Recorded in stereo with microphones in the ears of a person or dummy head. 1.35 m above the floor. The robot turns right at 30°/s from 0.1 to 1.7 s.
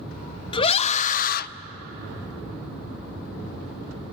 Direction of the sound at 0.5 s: 30° left (ahead or behind).